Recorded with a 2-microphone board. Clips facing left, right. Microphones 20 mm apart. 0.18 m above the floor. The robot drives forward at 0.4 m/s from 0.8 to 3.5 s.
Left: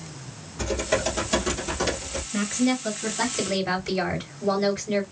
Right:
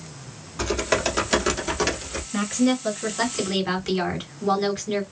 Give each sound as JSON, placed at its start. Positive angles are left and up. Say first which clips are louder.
{"t": 0.6, "sound": "typing on a keyboard", "louder": "right 2 dB", "side_deg": -35, "distance_m": 0.9}
{"t": 2.3, "sound": "a woman speaking", "louder": "right 2 dB", "side_deg": -20, "distance_m": 2.0}